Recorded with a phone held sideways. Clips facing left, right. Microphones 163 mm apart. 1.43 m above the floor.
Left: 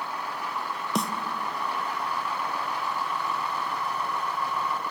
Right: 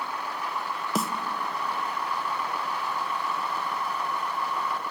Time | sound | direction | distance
0.9 | a snare drum | centre (ahead or behind) | 0.6 m